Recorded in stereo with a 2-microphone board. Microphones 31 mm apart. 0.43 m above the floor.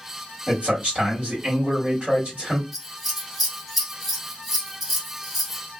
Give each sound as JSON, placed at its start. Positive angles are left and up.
{"t": 0.5, "sound": "a man speaking", "side_deg": -40, "distance_m": 1.7}
{"t": 2.7, "sound": "scissors", "side_deg": -5, "distance_m": 0.8}